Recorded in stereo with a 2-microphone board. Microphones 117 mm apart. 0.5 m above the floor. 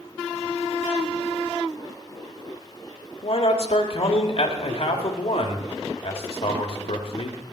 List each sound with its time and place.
3.2 s a man speaking: 55° left (ahead or behind), 1.5 m